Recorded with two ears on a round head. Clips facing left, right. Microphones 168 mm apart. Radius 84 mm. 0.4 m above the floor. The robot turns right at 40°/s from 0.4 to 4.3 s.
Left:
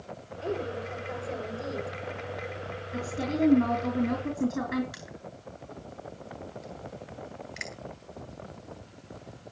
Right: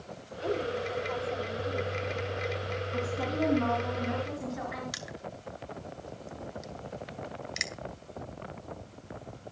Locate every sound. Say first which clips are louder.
0.4 s a woman speaking: right 1 dB; 5° left, 6.5 m; by 1.9 s 65° left, 6.5 m
2.9 s a woman speaking: left 3 dB; 20° left, 4.5 m; by 4.8 s 75° left, 4.5 m
4.9 s crushing: right 2 dB; 55° right (ahead or behind), 2 m